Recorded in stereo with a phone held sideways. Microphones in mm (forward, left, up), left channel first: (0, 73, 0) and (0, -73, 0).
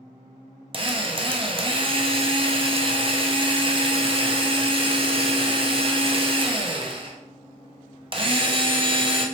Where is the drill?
35° right (ahead or behind), 0.6 m.